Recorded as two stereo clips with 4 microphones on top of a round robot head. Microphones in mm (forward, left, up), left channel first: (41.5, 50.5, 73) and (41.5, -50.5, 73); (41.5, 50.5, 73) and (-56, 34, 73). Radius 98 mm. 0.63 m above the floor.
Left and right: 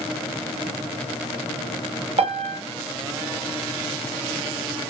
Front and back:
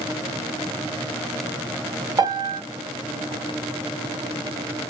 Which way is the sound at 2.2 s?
115° right.